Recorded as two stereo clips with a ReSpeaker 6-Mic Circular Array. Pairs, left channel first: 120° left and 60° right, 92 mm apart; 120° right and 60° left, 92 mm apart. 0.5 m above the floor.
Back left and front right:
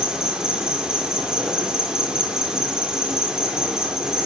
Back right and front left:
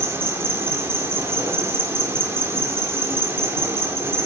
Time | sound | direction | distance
0.0 | an insect | 20° left | 2.0 m